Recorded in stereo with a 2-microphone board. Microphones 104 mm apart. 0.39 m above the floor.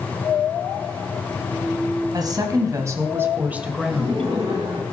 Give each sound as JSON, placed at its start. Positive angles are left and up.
{"t": 2.1, "sound": "a woman speaking", "side_deg": -40, "distance_m": 3.5}
{"t": 3.9, "sound": "laughter", "side_deg": -50, "distance_m": 5.0}